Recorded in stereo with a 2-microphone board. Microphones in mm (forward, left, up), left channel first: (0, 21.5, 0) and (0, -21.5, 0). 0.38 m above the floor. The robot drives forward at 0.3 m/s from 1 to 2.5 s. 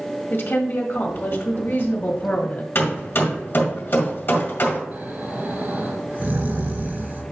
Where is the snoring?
50° right (ahead or behind), 2.5 m.